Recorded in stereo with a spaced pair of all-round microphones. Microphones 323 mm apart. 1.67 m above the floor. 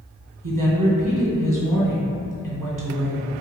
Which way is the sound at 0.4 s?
75° right (ahead or behind).